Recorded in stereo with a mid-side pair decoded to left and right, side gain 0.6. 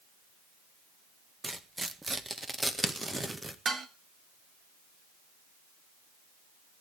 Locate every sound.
1.4 s tearing paper: 15° right, 1.5 m
3.6 s dishes clattering: 40° right, 2.0 m